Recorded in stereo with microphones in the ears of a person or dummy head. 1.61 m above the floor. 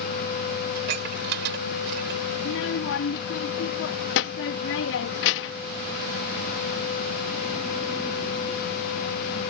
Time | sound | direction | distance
0.8 | dishes clattering | 70° right (ahead or behind) | ?
2.4 | a child speaking | 70° left (ahead or behind) | ?